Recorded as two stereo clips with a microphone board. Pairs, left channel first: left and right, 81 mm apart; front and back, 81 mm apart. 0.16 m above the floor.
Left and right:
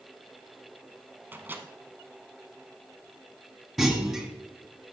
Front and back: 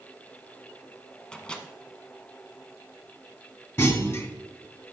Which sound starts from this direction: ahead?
A clunk, at 3.8 s.